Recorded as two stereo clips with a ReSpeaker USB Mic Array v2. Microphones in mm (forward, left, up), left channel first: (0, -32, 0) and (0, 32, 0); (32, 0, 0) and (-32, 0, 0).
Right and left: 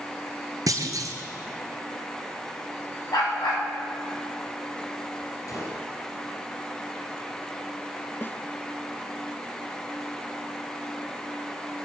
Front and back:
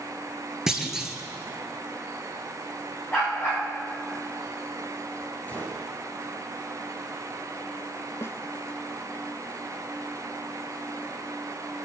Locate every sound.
0.7 s a clunk: 95° left, 1.6 m
3.1 s a dog barking: 65° right, 7.5 m
5.5 s a gunshot: 65° right, 4 m
8.2 s a snare drum: 40° right, 0.5 m